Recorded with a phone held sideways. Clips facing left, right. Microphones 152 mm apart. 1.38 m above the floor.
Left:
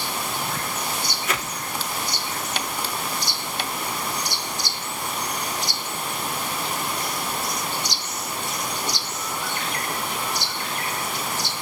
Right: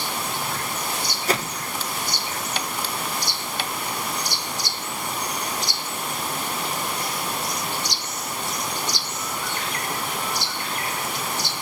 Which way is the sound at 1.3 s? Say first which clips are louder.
Right 7 dB; 35° right (ahead or behind).